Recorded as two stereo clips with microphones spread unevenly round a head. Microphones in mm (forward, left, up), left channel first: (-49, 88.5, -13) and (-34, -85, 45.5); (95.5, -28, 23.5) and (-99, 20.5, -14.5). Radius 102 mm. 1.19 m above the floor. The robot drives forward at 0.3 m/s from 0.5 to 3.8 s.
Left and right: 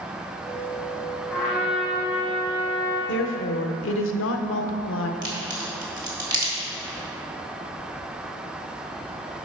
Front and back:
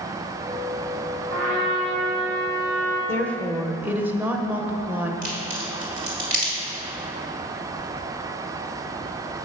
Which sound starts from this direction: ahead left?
A woman speaking, at 3.1 s.